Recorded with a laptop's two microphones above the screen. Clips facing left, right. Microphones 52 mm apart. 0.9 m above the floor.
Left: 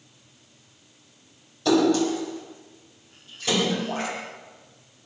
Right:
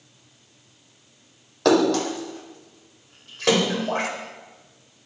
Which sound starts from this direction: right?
A splash, at 1.6 s.